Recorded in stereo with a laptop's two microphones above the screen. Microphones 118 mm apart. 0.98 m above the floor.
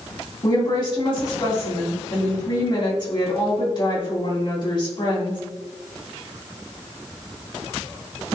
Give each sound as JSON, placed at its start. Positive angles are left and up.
{"t": 0.4, "sound": "a woman speaking", "side_deg": 45, "distance_m": 3.0}